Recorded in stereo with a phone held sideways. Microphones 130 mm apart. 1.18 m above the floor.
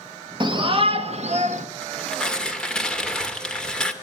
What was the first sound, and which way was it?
A shout, 35° right (ahead or behind).